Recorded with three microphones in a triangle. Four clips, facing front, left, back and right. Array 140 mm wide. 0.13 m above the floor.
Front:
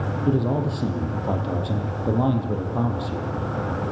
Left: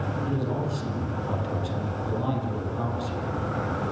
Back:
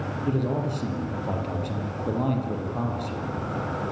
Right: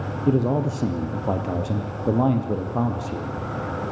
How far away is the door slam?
No door slam in this recording.